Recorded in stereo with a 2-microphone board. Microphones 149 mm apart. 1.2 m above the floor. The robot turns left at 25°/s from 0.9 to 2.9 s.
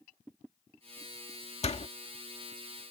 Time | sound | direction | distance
1.6 | a door slam | 45° left (ahead or behind) | ?